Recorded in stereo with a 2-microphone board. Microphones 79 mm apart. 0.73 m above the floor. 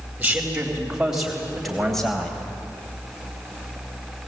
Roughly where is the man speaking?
Centre.